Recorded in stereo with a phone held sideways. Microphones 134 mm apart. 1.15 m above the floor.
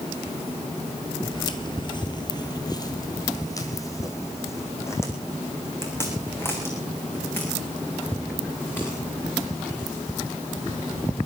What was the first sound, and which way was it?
Footsteps, 30° left (ahead or behind).